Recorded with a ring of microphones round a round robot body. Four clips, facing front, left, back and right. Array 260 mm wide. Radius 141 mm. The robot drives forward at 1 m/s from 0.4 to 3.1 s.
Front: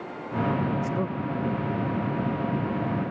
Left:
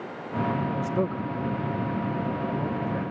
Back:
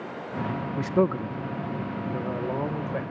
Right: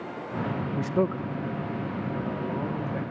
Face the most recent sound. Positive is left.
turn(degrees=180)